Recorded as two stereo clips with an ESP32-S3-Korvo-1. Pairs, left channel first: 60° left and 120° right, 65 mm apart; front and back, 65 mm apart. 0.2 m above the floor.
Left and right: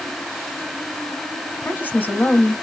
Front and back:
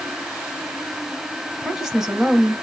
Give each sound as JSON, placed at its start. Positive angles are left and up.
{"t": 1.6, "sound": "a woman speaking", "azimuth_deg": 100, "distance_m": 1.3}